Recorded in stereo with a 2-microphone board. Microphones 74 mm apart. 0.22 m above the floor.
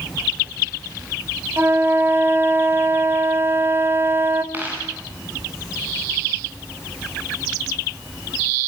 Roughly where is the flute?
Right.